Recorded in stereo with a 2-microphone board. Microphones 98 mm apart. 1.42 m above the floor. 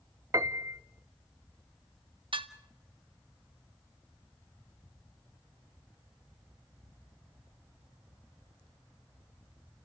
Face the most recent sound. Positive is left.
turn(degrees=-60)  # may be behind; listen again after turning